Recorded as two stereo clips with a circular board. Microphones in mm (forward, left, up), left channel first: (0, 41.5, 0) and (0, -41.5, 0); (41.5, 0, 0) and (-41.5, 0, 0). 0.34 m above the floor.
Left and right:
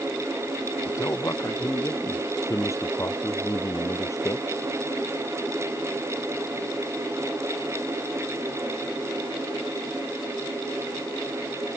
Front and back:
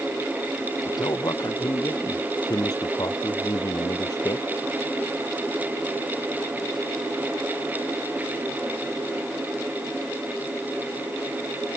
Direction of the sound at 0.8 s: 35° left.